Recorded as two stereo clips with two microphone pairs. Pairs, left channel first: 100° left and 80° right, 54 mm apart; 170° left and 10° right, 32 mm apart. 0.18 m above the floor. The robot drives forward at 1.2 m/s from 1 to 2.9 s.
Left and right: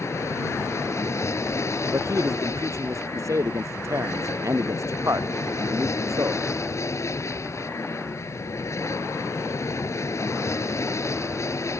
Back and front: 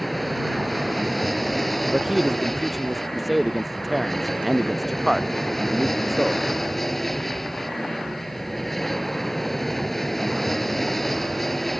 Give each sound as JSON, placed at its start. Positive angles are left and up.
{"t": 0.0, "sound": "an aircraft", "azimuth_deg": 85}
{"t": 1.9, "sound": "a man speaking", "azimuth_deg": -90}